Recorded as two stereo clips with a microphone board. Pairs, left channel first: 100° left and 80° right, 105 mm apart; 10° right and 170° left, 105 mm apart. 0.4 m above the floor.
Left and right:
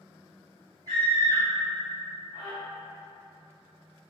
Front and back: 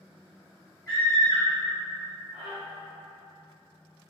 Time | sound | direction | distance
0.9 | a scream | 40° left | 1.7 m